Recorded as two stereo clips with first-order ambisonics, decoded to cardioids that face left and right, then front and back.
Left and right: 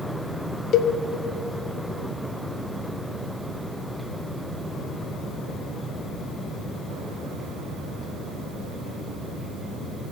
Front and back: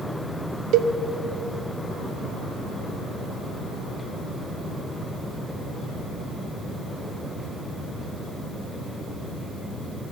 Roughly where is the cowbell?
Behind left.